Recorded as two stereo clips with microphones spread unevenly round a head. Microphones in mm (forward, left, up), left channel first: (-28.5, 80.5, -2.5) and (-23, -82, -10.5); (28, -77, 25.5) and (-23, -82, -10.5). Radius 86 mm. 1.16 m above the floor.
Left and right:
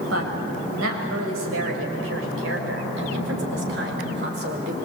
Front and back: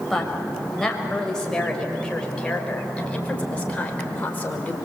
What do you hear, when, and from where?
0.1 s a woman speaking: 75° right, 5.5 m; by 4.8 s 50° right, 4 m